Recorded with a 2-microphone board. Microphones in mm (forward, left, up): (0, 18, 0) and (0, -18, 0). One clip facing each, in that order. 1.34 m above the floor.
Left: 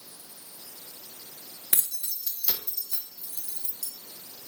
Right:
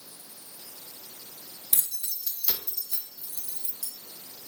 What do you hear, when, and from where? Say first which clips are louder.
1.7 s keys jangling: left 2 dB; 40° left (ahead or behind), 0.8 m; by 3.9 s 25° right (ahead or behind), 2.5 m